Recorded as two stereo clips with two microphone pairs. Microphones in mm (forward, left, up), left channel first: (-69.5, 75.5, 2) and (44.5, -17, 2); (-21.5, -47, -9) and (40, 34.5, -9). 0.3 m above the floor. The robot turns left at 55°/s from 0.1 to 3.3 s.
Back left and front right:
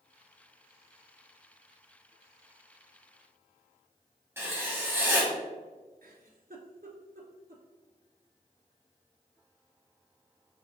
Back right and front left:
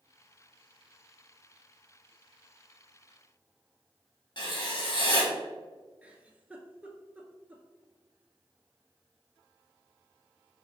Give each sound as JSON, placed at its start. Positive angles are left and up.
{"t": 4.4, "sound": "writing", "azimuth_deg": -110, "distance_m": 1.2}
{"t": 6.0, "sound": "a giggle", "azimuth_deg": -25, "distance_m": 0.7}